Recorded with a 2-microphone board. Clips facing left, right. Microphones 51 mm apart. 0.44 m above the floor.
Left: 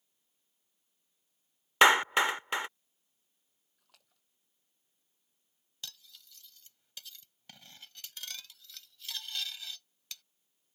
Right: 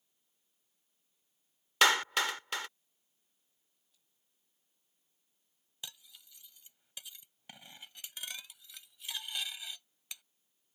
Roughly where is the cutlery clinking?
Centre.